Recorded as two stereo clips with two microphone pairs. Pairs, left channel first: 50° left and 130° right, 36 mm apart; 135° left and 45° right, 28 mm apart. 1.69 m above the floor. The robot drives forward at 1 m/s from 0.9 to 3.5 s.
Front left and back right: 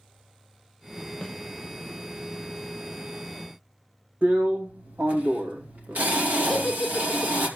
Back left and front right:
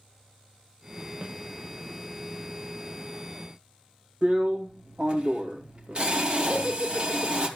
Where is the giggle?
50° right, 2 m.